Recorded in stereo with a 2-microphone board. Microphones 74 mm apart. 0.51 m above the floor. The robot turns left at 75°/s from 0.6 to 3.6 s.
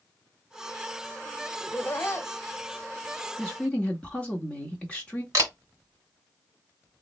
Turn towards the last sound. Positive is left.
turn(degrees=-40)  # may be behind; listen again after turning